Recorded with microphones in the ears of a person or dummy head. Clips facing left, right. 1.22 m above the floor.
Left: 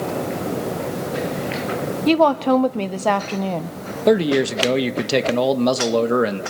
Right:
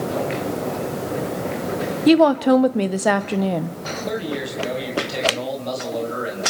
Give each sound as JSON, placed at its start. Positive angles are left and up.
{"t": 2.1, "sound": "a woman speaking", "side_deg": -15, "distance_m": 0.5}
{"t": 4.1, "sound": "a man speaking", "side_deg": 75, "distance_m": 1.1}